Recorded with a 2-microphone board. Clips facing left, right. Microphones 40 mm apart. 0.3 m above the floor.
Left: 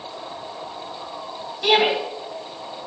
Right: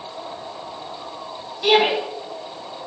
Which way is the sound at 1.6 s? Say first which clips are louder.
Right 1 dB; 5° left (ahead or behind).